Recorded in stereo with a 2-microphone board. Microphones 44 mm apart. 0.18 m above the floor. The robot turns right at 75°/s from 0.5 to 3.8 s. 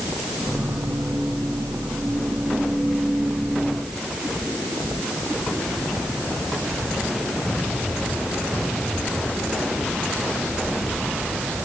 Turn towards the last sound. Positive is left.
No sound to turn to.